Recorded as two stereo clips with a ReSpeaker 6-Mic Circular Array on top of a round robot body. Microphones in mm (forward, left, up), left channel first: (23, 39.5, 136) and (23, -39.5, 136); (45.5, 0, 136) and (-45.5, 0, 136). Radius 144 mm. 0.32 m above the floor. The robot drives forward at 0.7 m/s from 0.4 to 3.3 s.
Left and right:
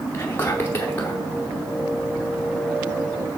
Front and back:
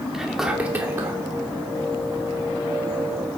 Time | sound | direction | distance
0.1 | whispering | 100° left | 0.9 m